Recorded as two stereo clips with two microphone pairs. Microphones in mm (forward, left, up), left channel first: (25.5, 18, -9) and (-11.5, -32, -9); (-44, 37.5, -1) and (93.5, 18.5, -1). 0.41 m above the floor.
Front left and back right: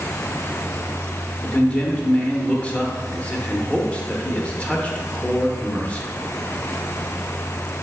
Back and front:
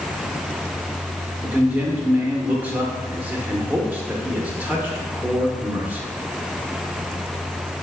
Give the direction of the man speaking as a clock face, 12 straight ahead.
11 o'clock.